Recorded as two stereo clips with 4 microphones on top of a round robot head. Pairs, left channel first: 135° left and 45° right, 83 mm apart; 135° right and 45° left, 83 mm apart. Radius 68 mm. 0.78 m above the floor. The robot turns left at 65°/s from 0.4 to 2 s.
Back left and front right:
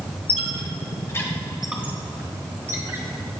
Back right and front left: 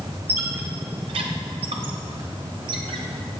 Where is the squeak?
120° left, 1.0 m; by 3.0 s 15° left, 1.0 m.